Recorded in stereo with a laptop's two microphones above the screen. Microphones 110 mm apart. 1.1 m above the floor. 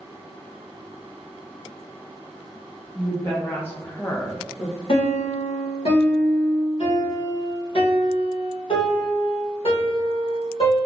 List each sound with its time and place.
3.0 s a woman speaking: 20° left (ahead or behind), 1.1 m; by 4.8 s 5° right (ahead or behind), 1.0 m
4.9 s a piano: 55° left (ahead or behind), 1.3 m